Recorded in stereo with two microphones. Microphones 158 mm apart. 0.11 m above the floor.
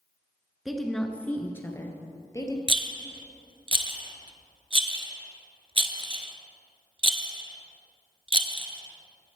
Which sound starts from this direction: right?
A rattle, at 2.7 s.